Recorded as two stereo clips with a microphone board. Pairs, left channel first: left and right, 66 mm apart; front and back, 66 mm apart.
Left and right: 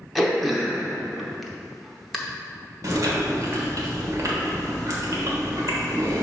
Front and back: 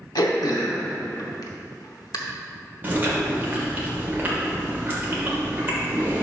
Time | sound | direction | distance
0.1 | throat clearing | straight ahead | 0.8 m
2.8 | chewing | 120° right | 1.4 m